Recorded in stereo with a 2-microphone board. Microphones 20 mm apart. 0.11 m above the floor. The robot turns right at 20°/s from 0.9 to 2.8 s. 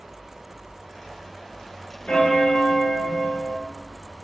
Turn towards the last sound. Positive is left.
turn(degrees=60)  # may be behind; listen again after turning